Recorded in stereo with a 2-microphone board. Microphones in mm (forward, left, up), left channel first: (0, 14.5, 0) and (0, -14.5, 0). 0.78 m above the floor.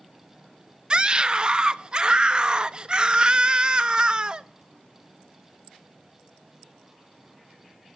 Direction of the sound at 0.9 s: 30° right (ahead or behind).